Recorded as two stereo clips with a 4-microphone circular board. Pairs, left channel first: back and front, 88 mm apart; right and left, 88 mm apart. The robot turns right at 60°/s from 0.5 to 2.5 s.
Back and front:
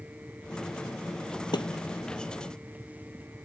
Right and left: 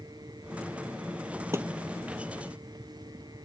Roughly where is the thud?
Behind left.